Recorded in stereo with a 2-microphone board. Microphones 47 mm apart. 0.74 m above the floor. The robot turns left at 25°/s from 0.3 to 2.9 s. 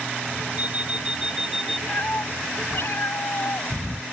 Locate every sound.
0.6 s an alarm clock: 150° right; by 1.8 s straight behind
1.9 s a cat meowing: 45° left (ahead or behind); by 4.0 s 70° left (ahead or behind)